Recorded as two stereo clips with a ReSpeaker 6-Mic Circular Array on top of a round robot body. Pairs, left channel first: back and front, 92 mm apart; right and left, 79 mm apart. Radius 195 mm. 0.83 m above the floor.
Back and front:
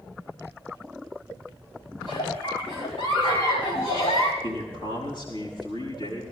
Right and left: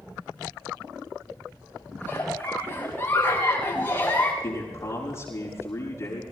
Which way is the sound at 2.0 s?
155° right.